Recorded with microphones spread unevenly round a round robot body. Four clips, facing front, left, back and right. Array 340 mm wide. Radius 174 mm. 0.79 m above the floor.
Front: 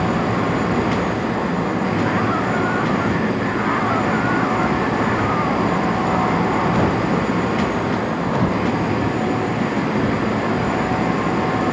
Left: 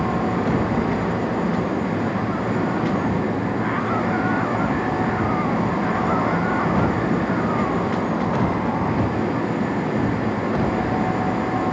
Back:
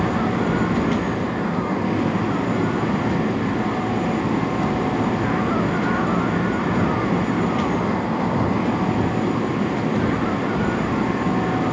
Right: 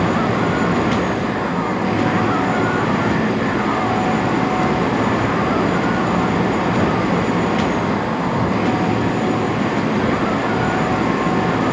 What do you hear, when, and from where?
Only background noise.